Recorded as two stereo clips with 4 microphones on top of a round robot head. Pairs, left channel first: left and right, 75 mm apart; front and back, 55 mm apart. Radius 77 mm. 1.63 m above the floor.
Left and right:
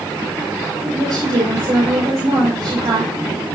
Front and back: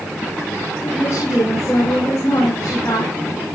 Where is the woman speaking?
60° right, 6 m.